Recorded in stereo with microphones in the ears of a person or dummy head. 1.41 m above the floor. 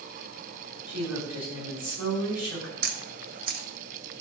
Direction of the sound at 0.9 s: 10° right (ahead or behind).